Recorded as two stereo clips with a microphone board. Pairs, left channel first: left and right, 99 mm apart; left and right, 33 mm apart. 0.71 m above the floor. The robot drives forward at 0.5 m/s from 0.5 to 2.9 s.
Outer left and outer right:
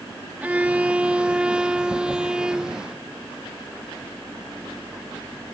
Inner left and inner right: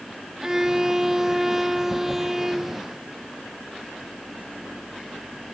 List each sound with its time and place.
0.4 s a violin: 15° right (ahead or behind); by 2.9 s 10° right (ahead or behind)